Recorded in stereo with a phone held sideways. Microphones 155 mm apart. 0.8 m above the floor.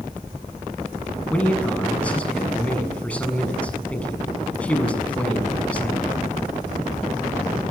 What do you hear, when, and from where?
1.3 s a man speaking: 10° left (ahead or behind), 7 m